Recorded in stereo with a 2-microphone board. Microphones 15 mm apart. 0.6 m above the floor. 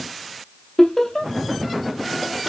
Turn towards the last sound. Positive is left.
turn(degrees=35)  # may be behind; listen again after turning